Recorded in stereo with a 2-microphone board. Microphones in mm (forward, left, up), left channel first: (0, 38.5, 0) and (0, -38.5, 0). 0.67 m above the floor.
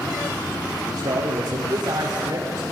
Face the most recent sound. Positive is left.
turn(degrees=-40)  # may be behind; listen again after turning